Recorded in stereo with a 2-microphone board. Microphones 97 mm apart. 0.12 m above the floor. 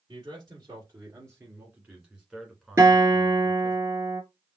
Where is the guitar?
30° right (ahead or behind), 2.5 m.